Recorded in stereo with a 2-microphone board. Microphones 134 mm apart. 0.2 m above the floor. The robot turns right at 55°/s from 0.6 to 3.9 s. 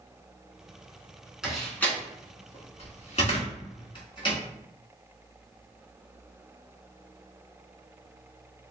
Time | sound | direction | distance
1.4 | a door slam | 5° right (ahead or behind) | 1.4 m